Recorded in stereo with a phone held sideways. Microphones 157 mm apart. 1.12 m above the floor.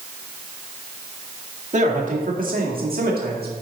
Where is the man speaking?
50° right (ahead or behind), 1.9 m; by 3.5 s 80° right, 1.9 m.